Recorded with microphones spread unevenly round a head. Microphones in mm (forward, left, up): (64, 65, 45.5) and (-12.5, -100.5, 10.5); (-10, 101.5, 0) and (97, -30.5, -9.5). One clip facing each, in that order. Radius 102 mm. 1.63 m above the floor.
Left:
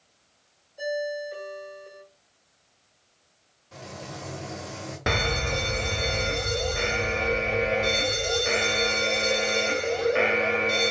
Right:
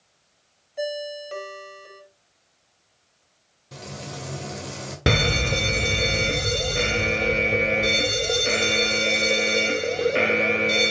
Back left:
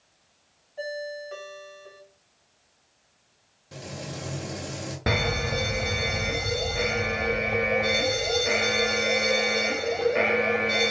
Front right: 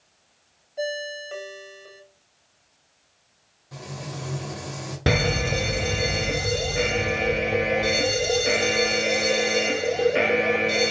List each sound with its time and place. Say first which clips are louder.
0.8 s a ringtone: even, front right 3 dB; 110° right, 3 m
3.7 s frying: right 3 dB, front right 1 dB; 170° right, 2 m
5.1 s a fire alarm: right 5 dB, front right 4 dB; 105° right, 1.1 m